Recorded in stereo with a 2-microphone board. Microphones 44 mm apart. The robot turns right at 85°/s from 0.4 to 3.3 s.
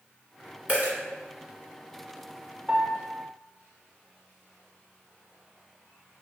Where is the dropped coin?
35° right (ahead or behind), 1.3 m; by 0.9 s 55° right (ahead or behind), 1.3 m.